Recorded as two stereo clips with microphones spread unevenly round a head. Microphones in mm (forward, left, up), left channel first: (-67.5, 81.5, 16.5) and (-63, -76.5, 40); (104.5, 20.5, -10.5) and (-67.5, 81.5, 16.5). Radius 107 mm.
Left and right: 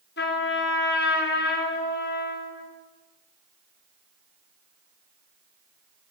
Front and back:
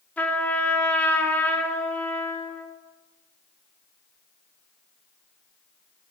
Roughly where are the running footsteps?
No running footsteps in this recording.